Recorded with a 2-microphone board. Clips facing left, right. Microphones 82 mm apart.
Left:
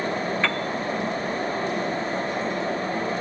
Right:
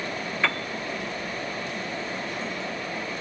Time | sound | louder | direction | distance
0.4 | a piano | left 2 dB | 5° right (ahead or behind) | ?